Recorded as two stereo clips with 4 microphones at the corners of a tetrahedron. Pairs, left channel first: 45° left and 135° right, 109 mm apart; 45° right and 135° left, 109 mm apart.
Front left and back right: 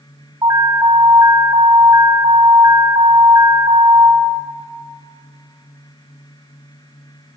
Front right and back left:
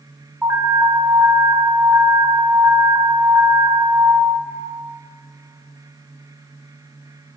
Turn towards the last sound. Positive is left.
turn(degrees=-145)